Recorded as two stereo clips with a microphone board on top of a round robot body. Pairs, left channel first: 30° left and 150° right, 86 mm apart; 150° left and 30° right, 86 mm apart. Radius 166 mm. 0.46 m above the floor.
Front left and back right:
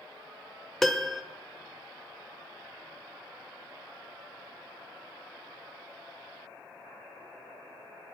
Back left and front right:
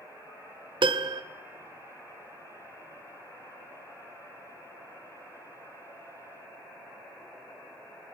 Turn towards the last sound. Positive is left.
turn(degrees=-60)